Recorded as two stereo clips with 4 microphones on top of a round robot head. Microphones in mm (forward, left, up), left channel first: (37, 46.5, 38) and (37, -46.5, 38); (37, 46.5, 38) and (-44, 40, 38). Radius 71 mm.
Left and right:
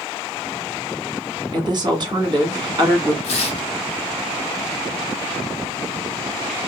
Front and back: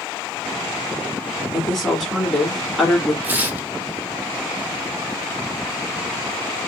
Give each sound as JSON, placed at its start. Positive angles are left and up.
{"t": 1.5, "sound": "a woman speaking", "azimuth_deg": -80, "distance_m": 1.4}
{"t": 3.2, "sound": "tearing paper", "azimuth_deg": 115, "distance_m": 0.9}